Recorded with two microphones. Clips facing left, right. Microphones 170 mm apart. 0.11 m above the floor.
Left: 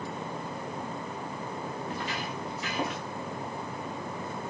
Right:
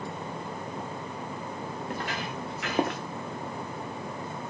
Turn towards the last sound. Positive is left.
turn(degrees=-55)  # may be behind; listen again after turning